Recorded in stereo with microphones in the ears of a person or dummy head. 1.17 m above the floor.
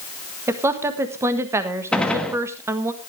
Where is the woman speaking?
15° right (ahead or behind), 1.6 m.